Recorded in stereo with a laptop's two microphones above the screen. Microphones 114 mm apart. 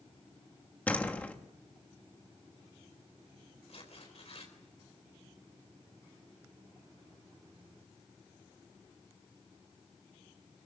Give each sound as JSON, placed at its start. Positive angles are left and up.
{"t": 0.9, "sound": "a door slam", "side_deg": 15, "distance_m": 1.2}
{"t": 3.7, "sound": "tearing paper", "side_deg": 65, "distance_m": 4.0}